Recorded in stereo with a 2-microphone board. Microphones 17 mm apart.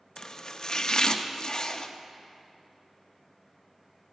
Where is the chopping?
40° left (ahead or behind), 0.6 m.